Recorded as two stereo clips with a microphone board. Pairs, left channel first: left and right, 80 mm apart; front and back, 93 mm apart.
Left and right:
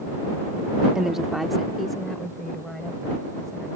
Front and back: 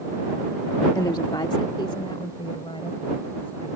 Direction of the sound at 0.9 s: 10° right.